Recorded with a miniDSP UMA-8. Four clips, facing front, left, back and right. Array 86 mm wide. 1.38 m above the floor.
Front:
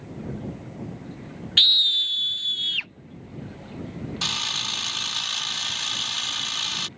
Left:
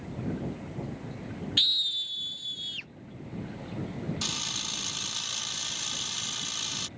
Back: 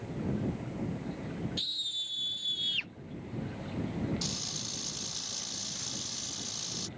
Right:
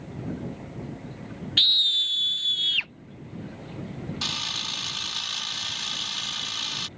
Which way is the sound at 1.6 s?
15° right.